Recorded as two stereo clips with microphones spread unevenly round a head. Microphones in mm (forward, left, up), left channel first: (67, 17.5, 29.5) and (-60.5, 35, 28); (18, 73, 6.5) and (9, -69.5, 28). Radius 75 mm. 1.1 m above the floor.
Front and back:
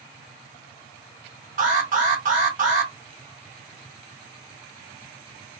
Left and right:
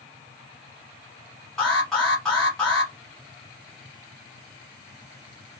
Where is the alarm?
170° left, 1.6 m.